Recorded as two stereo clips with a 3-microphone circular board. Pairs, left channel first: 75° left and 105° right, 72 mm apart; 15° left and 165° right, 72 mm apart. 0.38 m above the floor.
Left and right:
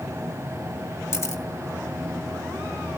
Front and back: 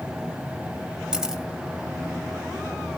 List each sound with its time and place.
1.1 s a camera shutter: 115° left, 1.9 m